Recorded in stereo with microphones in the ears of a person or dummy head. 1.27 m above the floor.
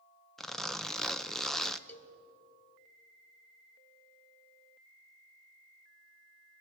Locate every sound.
0.4 s a zipper: 5° left (ahead or behind), 0.5 m
1.9 s a cowbell: 10° left (ahead or behind), 1.0 m